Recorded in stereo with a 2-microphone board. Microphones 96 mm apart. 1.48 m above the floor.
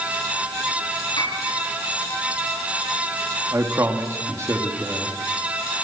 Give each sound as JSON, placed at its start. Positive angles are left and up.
{"t": 1.2, "sound": "a piano", "side_deg": 65, "distance_m": 7.0}
{"t": 3.5, "sound": "a man speaking", "side_deg": -30, "distance_m": 2.5}